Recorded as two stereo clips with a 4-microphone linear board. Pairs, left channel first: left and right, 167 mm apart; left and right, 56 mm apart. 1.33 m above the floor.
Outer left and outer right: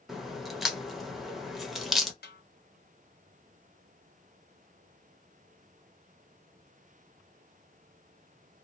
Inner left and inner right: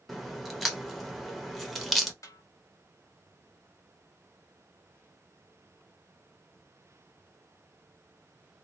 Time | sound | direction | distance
0.1 | a crack | centre (ahead or behind) | 0.8 m
2.2 | a snare drum | 65° left (ahead or behind) | 1.0 m